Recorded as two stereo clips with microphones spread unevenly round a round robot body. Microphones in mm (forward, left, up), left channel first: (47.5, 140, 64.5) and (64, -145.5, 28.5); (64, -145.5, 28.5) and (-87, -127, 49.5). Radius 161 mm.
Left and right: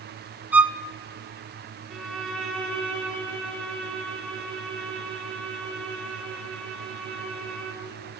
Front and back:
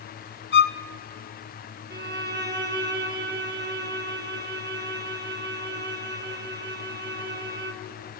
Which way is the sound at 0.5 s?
Straight ahead.